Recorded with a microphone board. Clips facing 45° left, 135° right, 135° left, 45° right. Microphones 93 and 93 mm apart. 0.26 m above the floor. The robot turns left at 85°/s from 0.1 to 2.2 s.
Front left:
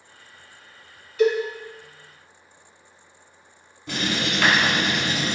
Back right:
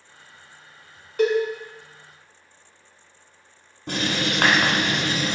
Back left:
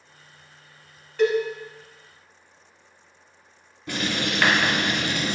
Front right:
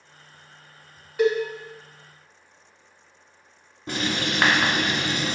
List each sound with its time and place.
1.2 s a cowbell: 120° right, 0.6 m; by 1.3 s 135° right, 0.6 m
3.9 s writing: 100° right, 0.7 m